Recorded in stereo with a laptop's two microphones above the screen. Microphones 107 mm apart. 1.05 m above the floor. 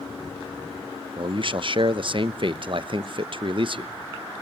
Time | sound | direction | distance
1.2 | a man speaking | 50° right (ahead or behind) | 0.6 m